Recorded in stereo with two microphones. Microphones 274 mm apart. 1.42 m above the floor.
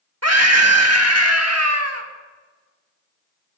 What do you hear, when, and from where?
0.2 s a scream: 65° right (ahead or behind), 1.9 m